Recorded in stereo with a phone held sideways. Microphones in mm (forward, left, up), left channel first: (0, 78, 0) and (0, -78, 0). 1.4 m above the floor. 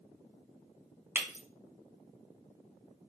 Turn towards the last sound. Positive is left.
turn(degrees=-15)  # may be behind; listen again after turning